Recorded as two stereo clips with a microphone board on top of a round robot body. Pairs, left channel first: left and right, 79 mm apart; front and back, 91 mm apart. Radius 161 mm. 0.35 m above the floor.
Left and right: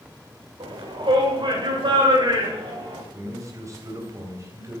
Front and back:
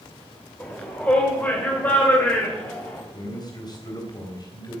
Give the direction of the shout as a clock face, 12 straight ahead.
3 o'clock.